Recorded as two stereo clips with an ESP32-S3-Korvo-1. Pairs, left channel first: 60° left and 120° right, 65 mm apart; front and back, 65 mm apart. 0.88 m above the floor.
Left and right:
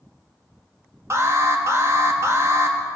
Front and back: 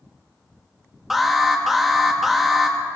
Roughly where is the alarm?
Right.